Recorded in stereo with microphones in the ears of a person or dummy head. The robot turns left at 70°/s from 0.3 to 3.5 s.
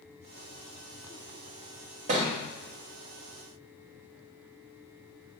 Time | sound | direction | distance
2.1 | a thud | 35° right (ahead or behind) | 1.0 m